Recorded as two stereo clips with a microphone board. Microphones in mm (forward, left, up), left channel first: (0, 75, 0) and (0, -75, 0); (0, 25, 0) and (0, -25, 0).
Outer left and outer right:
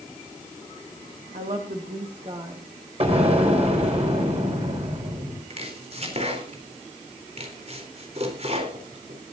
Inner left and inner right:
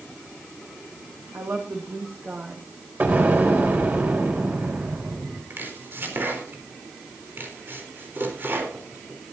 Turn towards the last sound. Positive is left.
turn(degrees=-45)  # may be behind; listen again after turning